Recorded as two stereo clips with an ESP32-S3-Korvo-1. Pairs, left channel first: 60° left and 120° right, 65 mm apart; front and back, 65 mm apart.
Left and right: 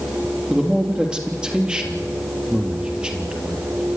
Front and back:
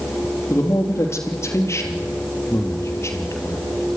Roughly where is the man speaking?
Ahead right.